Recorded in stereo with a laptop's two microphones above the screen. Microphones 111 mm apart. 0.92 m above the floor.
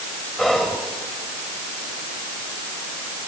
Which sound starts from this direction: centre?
Whispering, at 0.4 s.